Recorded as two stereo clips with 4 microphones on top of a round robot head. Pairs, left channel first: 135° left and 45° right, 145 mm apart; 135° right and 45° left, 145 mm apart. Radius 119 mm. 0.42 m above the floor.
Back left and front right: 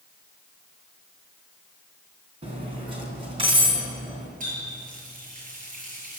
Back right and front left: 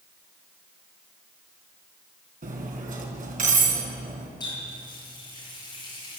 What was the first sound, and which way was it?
Cutlery clinking, 10° left.